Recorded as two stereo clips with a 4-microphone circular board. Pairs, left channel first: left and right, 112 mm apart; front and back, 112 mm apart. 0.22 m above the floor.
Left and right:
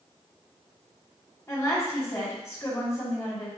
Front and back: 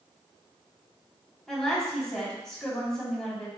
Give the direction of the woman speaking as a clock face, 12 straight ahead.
9 o'clock.